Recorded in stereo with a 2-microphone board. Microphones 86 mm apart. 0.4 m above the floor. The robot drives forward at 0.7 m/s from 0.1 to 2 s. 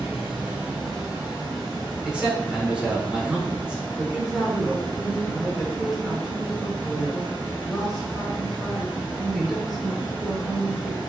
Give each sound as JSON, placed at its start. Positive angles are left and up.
{"t": 0.0, "sound": "running water", "side_deg": -15, "distance_m": 1.1}
{"t": 2.0, "sound": "a man speaking", "side_deg": -10, "distance_m": 0.8}
{"t": 4.0, "sound": "a woman speaking", "side_deg": 0, "distance_m": 0.8}